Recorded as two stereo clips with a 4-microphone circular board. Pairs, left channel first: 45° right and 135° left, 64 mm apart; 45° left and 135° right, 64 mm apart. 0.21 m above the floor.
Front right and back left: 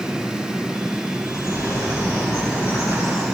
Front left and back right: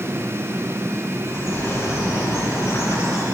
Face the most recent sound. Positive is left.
turn(degrees=0)